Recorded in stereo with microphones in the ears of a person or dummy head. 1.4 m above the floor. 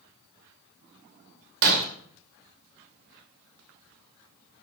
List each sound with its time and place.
1.6 s breaking glass: 70° right (ahead or behind), 2.5 m